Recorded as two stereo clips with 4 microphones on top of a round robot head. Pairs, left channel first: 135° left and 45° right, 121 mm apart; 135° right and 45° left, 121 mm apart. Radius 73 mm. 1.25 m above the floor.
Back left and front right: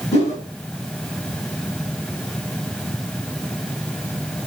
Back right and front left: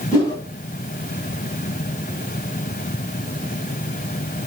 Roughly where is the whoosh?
Behind.